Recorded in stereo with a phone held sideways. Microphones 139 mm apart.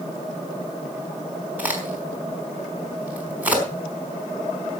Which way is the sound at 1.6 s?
10° right (ahead or behind).